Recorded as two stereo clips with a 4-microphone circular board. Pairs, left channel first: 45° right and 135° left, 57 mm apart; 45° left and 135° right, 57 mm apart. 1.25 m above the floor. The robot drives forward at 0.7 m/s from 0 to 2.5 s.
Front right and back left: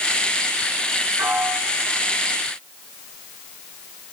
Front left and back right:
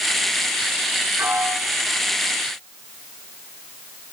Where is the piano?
175° left, 3 m.